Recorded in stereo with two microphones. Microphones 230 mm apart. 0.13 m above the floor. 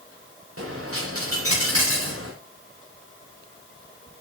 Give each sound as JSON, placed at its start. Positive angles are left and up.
{"t": 0.6, "sound": "a dropped coin", "side_deg": -80, "distance_m": 4.5}